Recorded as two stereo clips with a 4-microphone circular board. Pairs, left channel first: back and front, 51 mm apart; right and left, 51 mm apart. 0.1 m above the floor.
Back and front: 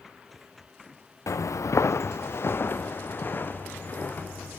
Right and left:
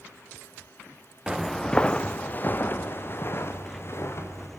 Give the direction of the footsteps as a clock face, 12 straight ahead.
6 o'clock.